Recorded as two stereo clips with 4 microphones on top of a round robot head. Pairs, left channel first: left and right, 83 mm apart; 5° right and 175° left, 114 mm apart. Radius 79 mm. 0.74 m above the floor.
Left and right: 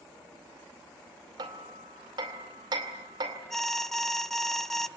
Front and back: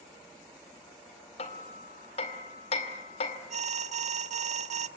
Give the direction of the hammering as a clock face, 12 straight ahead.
1 o'clock.